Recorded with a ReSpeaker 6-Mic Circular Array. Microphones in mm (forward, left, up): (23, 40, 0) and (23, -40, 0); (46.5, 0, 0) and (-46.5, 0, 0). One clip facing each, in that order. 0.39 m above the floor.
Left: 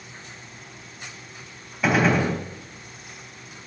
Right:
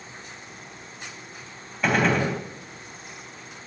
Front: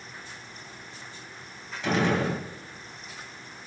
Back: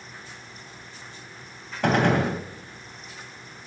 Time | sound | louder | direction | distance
1.8 | a gunshot | left 2 dB, back 4 dB | 175° left | 2.5 m